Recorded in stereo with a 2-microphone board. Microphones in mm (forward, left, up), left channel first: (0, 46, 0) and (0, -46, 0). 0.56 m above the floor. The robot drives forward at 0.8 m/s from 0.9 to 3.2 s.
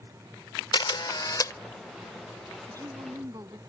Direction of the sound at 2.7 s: 40° right (ahead or behind).